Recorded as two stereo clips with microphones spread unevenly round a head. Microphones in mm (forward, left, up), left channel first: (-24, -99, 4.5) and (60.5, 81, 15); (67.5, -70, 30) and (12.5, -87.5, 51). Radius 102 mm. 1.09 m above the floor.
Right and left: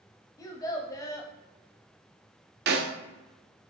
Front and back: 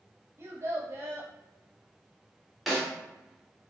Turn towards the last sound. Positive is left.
turn(degrees=95)